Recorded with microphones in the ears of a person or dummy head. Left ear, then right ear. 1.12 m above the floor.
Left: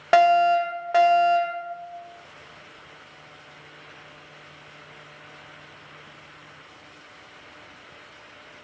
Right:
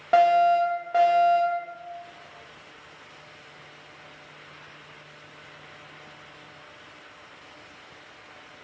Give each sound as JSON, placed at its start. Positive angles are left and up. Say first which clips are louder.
{"t": 0.1, "sound": "a fire alarm", "louder": "left 1 dB", "side_deg": 60, "distance_m": 3.0}